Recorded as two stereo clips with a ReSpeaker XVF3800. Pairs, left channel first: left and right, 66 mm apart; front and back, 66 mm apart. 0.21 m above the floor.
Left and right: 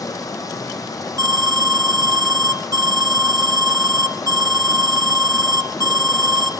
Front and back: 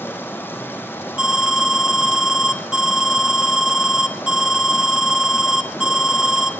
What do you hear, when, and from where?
0.0 s running water: 55° left, 3.5 m
1.2 s an alarm: 100° right, 2 m